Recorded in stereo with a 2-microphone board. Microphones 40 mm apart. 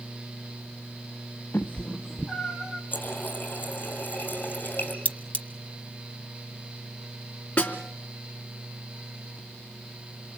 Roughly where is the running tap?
Left.